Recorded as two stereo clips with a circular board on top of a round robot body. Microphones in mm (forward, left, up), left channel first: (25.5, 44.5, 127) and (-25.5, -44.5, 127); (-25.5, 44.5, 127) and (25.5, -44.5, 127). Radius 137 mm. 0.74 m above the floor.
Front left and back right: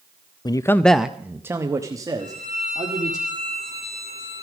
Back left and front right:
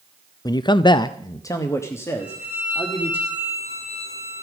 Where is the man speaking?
85° left, 0.5 m; by 3.2 s 170° right, 2 m.